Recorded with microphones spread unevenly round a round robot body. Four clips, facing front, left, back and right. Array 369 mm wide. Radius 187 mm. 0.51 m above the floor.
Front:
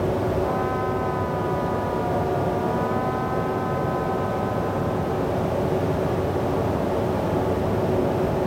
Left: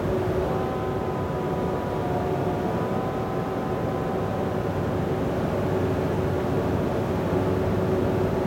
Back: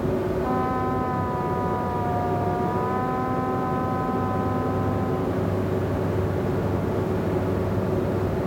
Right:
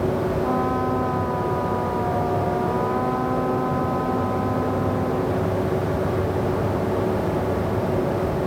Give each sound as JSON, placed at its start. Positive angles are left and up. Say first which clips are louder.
{"t": 0.4, "sound": "a trumpet", "louder": "right 4 dB, even", "azimuth_deg": -120}